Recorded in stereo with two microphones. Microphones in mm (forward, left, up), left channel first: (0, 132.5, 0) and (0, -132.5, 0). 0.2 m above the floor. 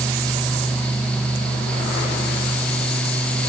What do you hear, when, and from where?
Only background noise.